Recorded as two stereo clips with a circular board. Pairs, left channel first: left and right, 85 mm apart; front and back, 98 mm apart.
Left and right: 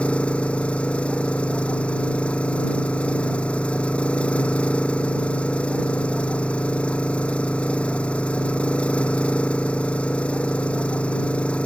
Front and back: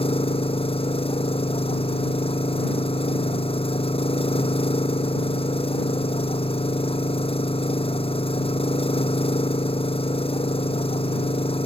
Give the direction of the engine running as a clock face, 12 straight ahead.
12 o'clock.